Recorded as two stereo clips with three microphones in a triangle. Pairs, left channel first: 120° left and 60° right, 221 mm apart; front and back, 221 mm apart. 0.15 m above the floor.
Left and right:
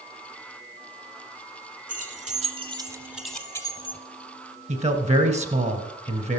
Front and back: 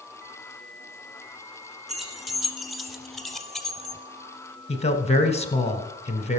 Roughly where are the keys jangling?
Right.